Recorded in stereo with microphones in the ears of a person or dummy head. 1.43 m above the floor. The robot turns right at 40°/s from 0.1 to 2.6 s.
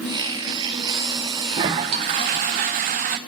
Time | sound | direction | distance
1.5 | a toilet flushing | 145° right | 0.5 m